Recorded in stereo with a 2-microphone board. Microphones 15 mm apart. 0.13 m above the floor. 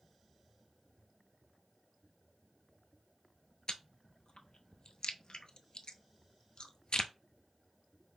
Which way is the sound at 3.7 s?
65° left (ahead or behind).